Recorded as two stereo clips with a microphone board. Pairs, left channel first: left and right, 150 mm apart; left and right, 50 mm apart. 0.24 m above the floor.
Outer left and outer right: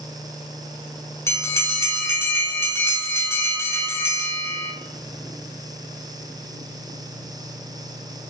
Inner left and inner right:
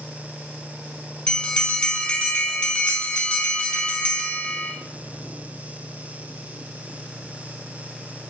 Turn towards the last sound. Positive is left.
turn(degrees=20)  # may be behind; listen again after turning